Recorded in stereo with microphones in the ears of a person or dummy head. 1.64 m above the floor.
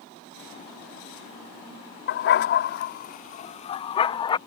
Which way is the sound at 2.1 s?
50° left (ahead or behind).